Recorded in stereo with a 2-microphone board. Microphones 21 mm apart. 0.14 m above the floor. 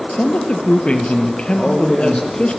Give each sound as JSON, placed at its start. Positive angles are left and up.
{"t": 0.1, "sound": "a man speaking", "side_deg": 60, "distance_m": 2.5}
{"t": 1.5, "sound": "a man speaking", "side_deg": 45, "distance_m": 6.0}